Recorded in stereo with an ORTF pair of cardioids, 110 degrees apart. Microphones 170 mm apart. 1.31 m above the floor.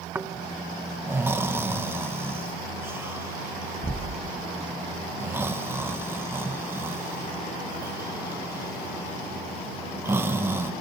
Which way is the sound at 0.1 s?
15° right.